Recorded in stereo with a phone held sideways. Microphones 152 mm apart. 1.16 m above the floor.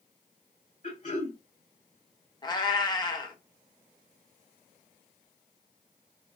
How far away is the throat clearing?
About 1.9 m.